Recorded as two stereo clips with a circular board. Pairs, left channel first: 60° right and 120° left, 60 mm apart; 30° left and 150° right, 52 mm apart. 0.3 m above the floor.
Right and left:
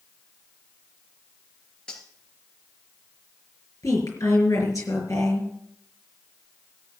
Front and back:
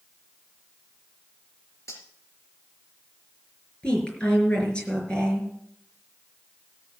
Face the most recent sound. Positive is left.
turn(degrees=-40)